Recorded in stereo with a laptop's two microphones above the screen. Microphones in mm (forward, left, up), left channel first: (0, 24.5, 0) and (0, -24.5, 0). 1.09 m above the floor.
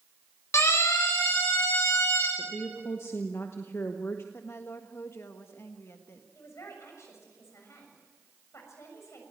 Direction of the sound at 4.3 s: 60° left (ahead or behind).